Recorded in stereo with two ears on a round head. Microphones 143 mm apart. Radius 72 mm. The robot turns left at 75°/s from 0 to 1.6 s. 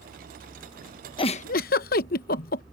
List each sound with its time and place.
1.2 s a giggle: 30° left (ahead or behind); by 2.6 s 65° left (ahead or behind)